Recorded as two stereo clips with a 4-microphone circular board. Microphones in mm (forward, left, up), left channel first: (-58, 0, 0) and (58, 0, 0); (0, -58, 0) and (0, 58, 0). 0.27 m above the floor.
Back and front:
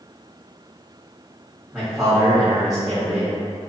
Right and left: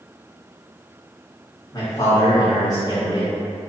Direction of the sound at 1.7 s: 85° right.